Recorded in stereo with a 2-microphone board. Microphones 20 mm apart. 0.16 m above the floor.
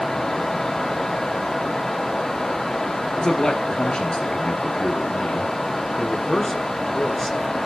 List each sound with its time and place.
3.2 s a man speaking: 55° left (ahead or behind), 2.5 m
6.0 s a man speaking: 15° left (ahead or behind), 1.6 m